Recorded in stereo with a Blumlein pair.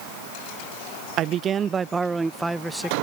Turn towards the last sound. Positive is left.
turn(degrees=0)